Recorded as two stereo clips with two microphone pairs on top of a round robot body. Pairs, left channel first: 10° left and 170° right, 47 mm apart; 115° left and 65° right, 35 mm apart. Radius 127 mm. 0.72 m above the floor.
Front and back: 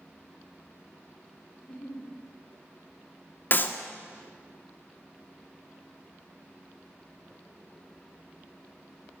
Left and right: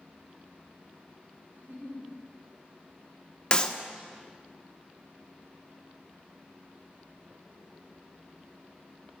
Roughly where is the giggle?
Ahead right.